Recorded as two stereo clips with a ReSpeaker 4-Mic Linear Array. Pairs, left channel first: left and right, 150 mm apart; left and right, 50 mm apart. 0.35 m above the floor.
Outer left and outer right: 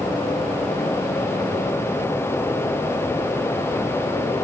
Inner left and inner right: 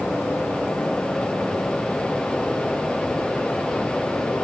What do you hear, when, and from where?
Only background noise.